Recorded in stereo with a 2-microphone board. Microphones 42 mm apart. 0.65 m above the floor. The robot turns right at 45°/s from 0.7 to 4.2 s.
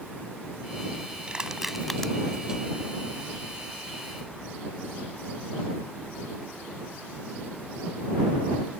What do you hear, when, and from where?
1.3 s crushing: 25° right (ahead or behind); by 2.1 s 15° left (ahead or behind)